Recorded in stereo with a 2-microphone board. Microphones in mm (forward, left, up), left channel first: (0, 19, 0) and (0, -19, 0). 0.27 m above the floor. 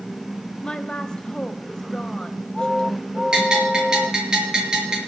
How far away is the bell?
About 4.5 m.